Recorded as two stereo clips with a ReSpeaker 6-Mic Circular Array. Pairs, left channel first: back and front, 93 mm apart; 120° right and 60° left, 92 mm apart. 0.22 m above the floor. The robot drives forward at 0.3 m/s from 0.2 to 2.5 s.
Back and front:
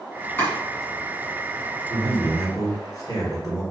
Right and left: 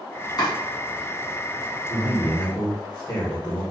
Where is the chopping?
125° right, 1.7 m; by 0.5 s 130° right, 1.7 m.